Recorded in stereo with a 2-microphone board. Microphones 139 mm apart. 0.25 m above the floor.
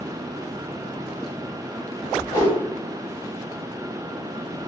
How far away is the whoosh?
About 1.8 m.